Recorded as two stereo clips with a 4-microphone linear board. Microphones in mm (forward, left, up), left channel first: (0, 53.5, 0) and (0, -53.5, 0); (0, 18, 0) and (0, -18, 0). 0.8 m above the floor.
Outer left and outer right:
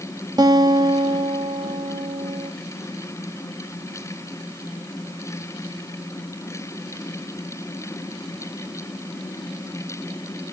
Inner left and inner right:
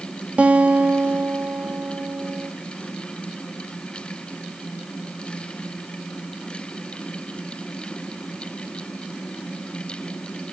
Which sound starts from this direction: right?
A guitar, at 0.4 s.